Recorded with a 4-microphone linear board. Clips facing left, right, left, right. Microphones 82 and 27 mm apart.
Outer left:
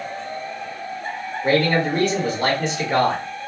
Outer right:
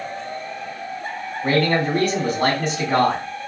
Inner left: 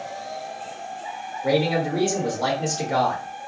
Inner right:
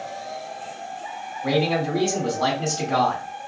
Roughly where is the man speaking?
Right.